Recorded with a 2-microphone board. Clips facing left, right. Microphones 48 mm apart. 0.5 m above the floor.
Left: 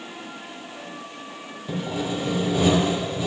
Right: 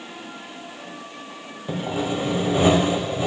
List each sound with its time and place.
1.7 s sawing: 35° right (ahead or behind), 1.0 m